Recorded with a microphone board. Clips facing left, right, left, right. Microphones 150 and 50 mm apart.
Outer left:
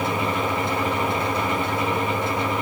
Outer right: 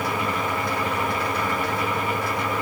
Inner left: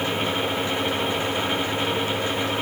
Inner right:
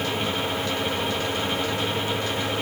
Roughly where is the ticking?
No ticking in this recording.